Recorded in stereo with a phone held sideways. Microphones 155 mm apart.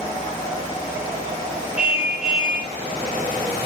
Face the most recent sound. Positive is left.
turn(degrees=-5)  # may be behind; listen again after turning